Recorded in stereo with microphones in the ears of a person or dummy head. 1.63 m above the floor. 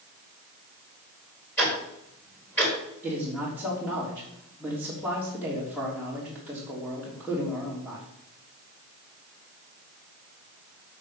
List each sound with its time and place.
1.6 s ticking: 5° left (ahead or behind), 3.5 m
3.0 s a man speaking: 5° left (ahead or behind), 3 m